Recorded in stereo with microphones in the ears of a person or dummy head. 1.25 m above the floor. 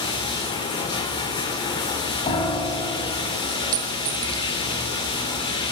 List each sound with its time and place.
0.0 s running water: 30° left (ahead or behind), 1.6 m
2.3 s a piano: 30° left (ahead or behind), 3 m
3.7 s a clink: 15° right (ahead or behind), 0.5 m